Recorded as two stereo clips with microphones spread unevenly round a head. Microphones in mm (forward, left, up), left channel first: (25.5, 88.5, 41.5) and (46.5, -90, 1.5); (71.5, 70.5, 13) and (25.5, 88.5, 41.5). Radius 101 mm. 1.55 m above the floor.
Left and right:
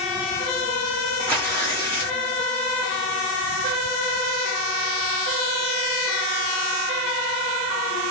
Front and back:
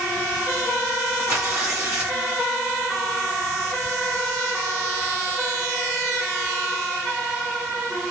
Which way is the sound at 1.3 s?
Straight behind.